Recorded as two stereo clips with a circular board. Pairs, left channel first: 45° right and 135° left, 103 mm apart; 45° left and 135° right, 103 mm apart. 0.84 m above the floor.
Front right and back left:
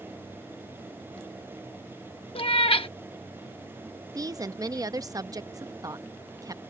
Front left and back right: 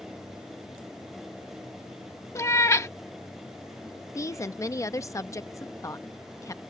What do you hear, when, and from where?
2.4 s a cat meowing: 15° right
4.2 s a woman speaking: 95° left